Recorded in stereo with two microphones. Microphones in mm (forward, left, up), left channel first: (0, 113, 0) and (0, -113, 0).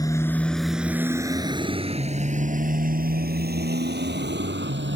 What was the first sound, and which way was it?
A motorcycle, 15° left (ahead or behind).